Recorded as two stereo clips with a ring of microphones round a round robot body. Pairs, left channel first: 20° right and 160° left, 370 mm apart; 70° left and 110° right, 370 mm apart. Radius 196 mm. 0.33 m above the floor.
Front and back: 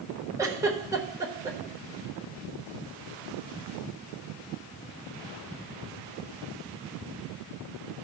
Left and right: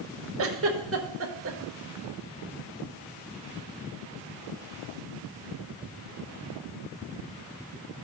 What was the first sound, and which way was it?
A giggle, 125° right.